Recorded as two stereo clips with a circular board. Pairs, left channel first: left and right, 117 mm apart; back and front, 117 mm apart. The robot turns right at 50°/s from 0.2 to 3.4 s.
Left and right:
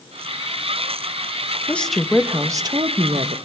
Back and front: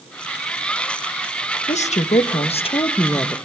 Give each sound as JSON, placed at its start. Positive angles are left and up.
{"t": 1.7, "sound": "a woman speaking", "azimuth_deg": 165, "distance_m": 1.2}